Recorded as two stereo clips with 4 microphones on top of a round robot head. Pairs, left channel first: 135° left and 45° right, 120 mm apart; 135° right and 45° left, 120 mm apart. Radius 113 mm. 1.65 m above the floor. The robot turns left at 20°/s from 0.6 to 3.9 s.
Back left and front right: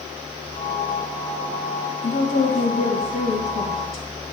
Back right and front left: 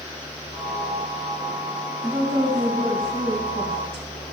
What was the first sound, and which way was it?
A woman speaking, 125° left.